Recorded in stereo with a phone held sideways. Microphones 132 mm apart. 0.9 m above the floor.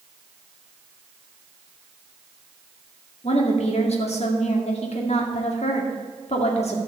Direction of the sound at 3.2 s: 55° left (ahead or behind).